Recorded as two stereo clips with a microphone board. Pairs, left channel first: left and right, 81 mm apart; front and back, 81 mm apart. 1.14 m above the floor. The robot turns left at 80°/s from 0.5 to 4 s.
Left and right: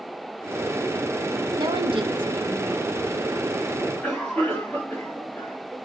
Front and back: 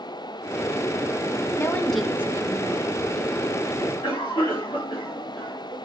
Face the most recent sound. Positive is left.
turn(degrees=20)